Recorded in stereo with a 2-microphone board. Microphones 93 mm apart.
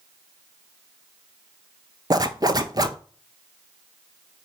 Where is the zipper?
40° right (ahead or behind), 0.5 m.